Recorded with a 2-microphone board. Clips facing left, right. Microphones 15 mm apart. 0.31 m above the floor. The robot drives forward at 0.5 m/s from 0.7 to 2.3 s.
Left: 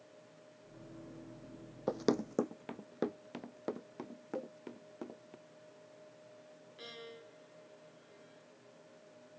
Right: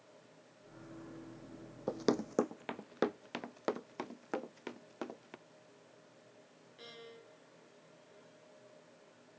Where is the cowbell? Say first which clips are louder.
Even; 15° left (ahead or behind).